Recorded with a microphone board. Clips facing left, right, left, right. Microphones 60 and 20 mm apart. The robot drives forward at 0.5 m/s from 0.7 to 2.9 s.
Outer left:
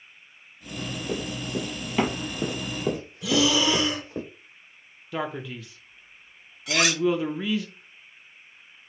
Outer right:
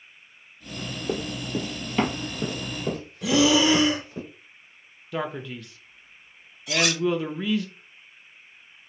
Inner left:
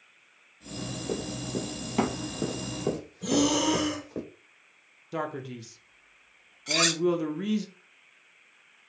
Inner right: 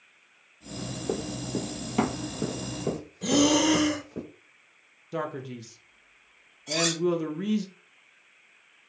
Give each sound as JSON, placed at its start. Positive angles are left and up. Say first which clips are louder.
{"t": 1.1, "sound": "running footsteps", "louder": "outer right 2 dB, inner right 2 dB", "side_deg": -25, "distance_m": 1.1}
{"t": 3.2, "sound": "breathing", "louder": "outer right 3 dB, inner right 3 dB", "side_deg": -50, "distance_m": 1.1}
{"t": 5.1, "sound": "a man speaking", "louder": "even, even", "side_deg": 0, "distance_m": 0.6}
{"t": 6.7, "sound": "cutlery clinking", "louder": "outer left 1 dB, inner left 2 dB", "side_deg": 85, "distance_m": 1.5}